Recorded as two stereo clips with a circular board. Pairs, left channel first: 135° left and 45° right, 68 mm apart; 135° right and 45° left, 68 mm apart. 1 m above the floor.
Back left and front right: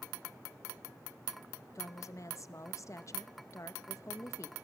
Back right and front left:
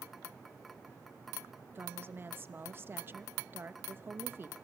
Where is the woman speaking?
100° left, 0.9 m.